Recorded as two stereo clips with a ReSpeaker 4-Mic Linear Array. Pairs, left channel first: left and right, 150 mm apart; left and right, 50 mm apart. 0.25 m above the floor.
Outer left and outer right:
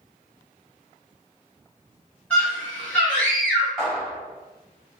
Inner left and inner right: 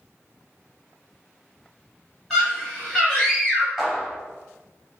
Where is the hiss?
I don't hear a hiss.